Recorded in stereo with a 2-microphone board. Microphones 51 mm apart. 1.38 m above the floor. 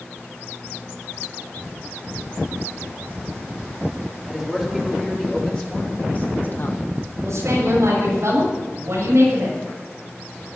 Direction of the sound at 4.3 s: 5° left (ahead or behind).